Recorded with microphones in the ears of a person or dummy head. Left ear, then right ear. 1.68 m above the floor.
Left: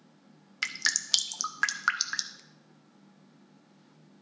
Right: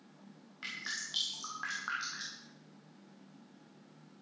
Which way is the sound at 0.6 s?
60° left (ahead or behind).